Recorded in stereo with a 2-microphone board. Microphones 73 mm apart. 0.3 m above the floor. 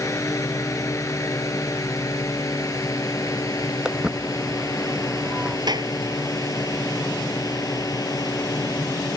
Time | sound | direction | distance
0.0 | a drone | 45° left (ahead or behind) | ?
3.9 | footsteps | 10° right (ahead or behind) | ?
5.7 | a clap | 75° right (ahead or behind) | ?